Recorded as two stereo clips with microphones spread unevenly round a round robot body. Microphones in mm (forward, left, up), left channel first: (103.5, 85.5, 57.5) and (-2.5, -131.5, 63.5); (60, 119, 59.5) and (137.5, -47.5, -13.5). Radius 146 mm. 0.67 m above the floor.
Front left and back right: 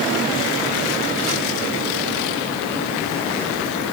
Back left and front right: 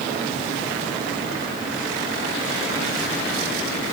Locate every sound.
Only background noise.